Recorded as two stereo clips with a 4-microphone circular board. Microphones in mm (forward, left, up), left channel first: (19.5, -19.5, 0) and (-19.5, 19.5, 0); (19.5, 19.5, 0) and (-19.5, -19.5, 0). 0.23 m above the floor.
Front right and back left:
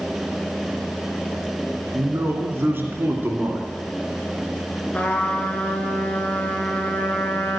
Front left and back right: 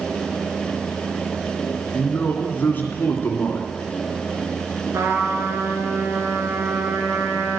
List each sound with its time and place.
1.9 s a man speaking: 95° left, 2.5 m
4.9 s a trumpet: 105° right, 1.7 m